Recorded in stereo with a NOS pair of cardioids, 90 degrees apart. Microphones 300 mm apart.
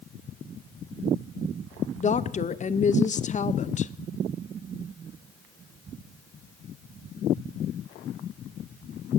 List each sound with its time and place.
2.0 s a woman speaking: 25° left, 0.5 m